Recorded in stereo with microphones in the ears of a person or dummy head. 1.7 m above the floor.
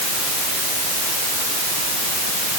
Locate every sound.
Only background noise.